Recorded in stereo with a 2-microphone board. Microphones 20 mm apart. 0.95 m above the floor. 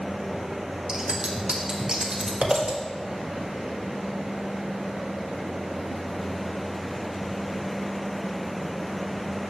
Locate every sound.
0.9 s scissors: 65° right (ahead or behind), 1.3 m